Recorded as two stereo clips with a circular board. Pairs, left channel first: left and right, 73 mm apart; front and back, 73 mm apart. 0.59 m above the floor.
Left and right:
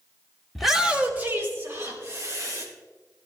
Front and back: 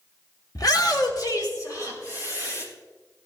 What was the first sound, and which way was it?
A shout, 5° left.